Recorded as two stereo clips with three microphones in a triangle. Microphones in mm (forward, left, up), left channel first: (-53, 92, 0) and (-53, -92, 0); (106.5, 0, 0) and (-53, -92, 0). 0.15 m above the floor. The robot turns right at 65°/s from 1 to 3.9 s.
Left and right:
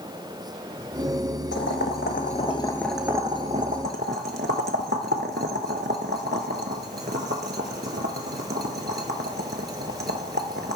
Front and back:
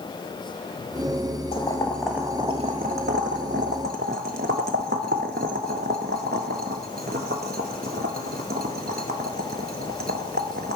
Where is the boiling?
85° left, 0.6 m; by 10.8 s 115° right, 0.6 m.